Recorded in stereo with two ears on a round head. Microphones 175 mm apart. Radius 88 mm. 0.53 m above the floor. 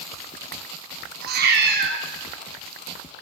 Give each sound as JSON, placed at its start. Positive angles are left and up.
{"t": 1.2, "sound": "a cat meowing", "side_deg": -55, "distance_m": 0.7}